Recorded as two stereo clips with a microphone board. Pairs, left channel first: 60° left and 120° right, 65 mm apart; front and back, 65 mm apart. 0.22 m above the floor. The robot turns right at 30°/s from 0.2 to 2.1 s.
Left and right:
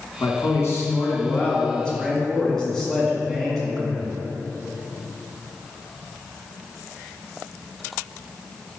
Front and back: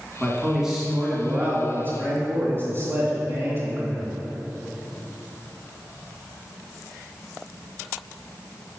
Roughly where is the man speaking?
Left.